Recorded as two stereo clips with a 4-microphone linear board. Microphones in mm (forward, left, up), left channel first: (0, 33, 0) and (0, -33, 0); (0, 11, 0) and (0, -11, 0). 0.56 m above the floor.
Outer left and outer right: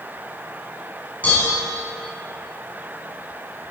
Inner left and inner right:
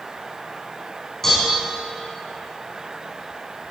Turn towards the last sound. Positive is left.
turn(degrees=20)  # may be behind; listen again after turning